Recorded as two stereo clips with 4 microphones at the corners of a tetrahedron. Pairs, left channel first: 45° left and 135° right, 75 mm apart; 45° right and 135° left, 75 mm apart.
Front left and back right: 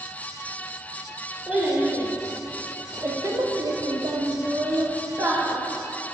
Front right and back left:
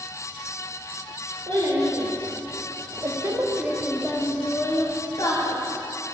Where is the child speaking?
150° left, 1.8 m; by 5.6 s 80° right, 1.3 m.